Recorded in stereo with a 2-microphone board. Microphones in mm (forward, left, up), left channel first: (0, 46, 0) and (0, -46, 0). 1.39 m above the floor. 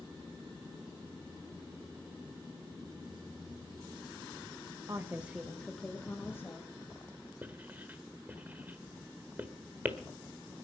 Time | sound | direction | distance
4.9 | a woman speaking | 35° right (ahead or behind) | 1.1 m
7.4 | writing | 20° right (ahead or behind) | 1.3 m